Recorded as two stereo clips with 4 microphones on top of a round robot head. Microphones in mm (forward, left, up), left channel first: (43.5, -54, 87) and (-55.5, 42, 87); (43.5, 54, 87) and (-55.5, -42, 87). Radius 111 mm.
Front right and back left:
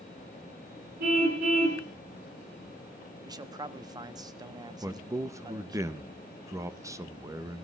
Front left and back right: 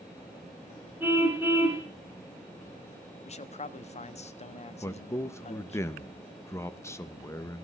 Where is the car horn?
145° left, 4.5 m.